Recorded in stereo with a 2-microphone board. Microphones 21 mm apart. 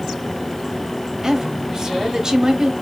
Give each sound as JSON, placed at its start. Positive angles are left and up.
{"t": 1.2, "sound": "a woman speaking", "side_deg": -35, "distance_m": 1.3}